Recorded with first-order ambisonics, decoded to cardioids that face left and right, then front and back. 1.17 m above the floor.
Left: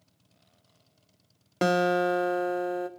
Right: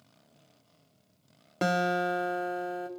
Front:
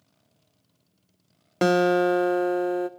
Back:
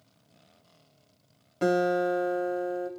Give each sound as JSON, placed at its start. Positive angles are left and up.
{"t": 1.6, "sound": "a guitar", "azimuth_deg": 20, "distance_m": 0.6}